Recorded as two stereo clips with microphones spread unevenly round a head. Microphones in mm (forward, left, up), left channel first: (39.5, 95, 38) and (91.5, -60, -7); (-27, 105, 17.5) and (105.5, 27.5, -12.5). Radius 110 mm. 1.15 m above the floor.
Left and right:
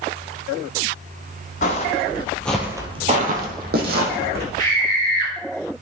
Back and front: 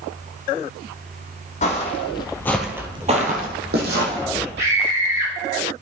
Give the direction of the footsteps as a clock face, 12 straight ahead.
8 o'clock.